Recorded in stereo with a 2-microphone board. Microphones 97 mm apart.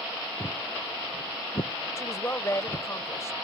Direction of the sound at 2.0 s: 30° left (ahead or behind).